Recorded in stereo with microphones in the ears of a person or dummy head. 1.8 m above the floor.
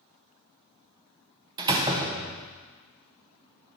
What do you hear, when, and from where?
1.6 s a door slam: 25° right (ahead or behind), 1.0 m